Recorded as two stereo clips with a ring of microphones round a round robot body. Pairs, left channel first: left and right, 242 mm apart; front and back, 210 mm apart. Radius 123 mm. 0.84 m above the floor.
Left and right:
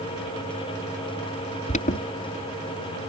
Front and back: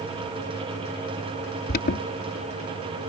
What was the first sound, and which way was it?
An alarm, 35° left.